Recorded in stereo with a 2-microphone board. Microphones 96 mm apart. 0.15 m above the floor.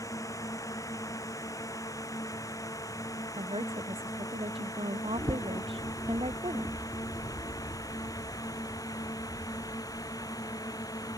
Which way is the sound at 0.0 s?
35° left (ahead or behind).